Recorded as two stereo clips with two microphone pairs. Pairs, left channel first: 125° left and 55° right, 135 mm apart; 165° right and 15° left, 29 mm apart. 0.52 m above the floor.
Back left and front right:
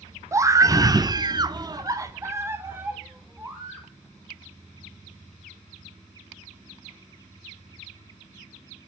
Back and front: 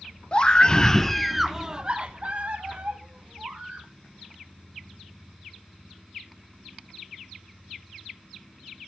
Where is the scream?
115° right, 1.1 m; by 3.9 s 30° left, 1.9 m.